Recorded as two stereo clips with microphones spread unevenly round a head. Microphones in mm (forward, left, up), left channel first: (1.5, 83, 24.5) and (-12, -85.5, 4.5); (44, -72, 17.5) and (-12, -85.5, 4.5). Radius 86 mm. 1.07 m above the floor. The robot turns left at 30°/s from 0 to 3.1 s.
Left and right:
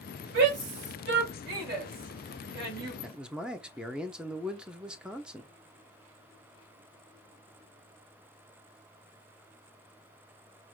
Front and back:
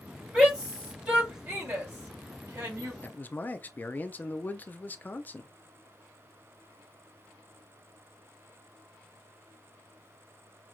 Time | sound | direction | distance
0.3 | a shout | 85° right | 3.5 m
3.0 | a man speaking | 30° right | 0.7 m